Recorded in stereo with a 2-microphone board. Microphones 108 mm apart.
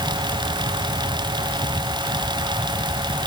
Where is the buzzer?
No buzzer in this recording.